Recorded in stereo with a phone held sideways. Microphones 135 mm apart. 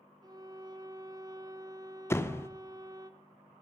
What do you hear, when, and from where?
0.2 s a violin: 30° right (ahead or behind), 0.6 m
2.1 s a door slam: 20° left (ahead or behind), 0.5 m